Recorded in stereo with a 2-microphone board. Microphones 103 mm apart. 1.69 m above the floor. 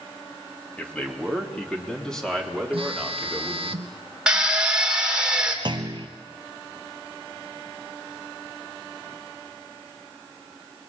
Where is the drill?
10° right (ahead or behind), 3 m.